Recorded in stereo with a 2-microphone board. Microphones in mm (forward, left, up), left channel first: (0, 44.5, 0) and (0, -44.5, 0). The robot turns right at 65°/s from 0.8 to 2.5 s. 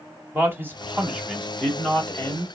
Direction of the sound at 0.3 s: 45° right.